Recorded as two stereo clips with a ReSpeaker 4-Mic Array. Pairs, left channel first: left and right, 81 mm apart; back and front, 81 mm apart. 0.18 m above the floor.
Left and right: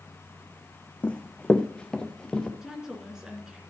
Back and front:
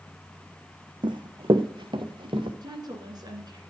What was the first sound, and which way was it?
Running footsteps, 15° left.